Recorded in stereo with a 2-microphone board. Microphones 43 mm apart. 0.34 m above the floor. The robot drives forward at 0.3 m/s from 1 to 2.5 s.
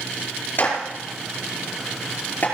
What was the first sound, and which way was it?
A clap, 50° left (ahead or behind).